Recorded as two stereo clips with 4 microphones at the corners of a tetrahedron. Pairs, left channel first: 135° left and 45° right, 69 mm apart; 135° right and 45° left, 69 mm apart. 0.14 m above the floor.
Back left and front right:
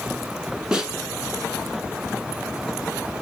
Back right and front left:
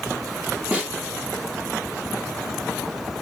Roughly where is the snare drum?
Ahead.